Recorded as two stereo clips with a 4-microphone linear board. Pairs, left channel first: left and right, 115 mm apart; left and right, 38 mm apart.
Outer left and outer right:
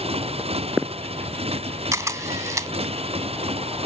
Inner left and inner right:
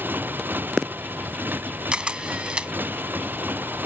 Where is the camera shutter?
25° right (ahead or behind).